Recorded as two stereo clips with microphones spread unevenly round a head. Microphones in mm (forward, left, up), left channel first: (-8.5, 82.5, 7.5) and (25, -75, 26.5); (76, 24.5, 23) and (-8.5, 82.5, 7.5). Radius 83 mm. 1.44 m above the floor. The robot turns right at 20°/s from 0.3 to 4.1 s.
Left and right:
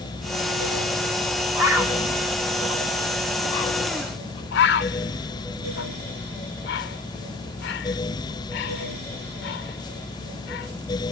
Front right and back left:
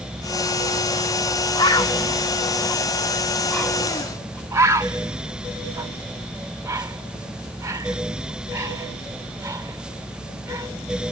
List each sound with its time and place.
1.6 s a bird: 5° right, 3.5 m; by 4.4 s 45° left, 3.5 m
4.5 s a bird: 80° left, 1.5 m